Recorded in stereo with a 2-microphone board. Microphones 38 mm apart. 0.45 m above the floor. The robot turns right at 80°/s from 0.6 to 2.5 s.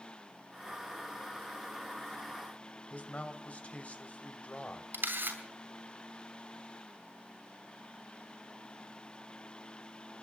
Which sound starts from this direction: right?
A camera shutter, at 4.9 s.